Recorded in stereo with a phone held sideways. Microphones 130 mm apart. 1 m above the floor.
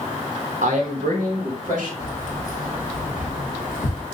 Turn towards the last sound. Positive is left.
turn(degrees=70)  # may be behind; listen again after turning